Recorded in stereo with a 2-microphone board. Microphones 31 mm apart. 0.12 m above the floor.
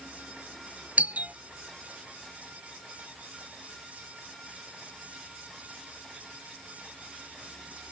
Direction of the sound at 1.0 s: 55° right (ahead or behind).